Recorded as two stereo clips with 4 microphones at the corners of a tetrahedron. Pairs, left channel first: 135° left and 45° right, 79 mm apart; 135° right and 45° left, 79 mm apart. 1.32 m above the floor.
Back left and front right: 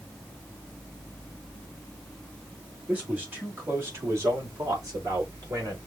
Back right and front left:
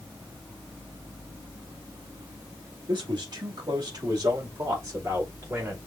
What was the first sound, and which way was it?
A man speaking, 25° left.